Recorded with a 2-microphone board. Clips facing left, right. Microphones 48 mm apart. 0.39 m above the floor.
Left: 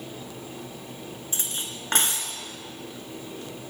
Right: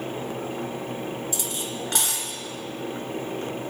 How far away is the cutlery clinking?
About 3 m.